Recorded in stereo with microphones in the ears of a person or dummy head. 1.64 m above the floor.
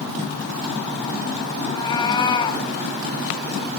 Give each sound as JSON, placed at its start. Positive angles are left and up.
{"t": 1.6, "sound": "a cat meowing", "side_deg": 25, "distance_m": 3.5}